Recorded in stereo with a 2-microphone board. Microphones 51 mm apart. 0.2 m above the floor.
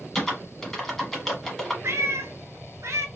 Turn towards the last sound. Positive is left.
turn(degrees=-75)  # may be behind; listen again after turning